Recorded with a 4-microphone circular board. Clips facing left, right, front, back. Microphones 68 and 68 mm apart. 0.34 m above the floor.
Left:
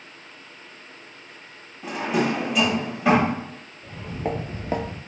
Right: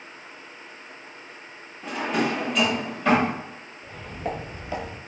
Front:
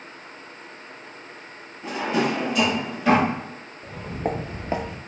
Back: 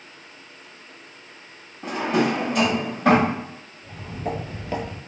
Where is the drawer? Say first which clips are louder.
Left 2 dB, back 2 dB; 170° left, 0.8 m.